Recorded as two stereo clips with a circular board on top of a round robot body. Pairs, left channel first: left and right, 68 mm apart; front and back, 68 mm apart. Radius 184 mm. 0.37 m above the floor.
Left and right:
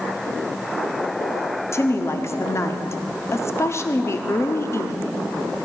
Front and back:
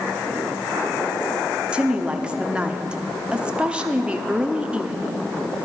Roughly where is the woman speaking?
Behind left.